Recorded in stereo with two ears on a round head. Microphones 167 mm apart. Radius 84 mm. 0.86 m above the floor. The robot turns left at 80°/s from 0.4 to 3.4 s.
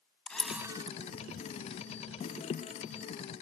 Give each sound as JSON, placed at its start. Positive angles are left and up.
{"t": 0.3, "sound": "a camera shutter", "side_deg": 5, "distance_m": 1.2}